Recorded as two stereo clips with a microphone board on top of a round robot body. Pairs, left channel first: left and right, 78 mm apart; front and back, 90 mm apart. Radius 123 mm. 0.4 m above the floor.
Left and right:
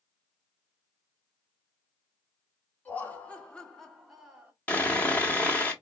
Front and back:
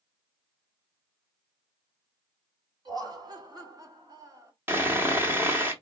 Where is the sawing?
140° left, 1.5 m.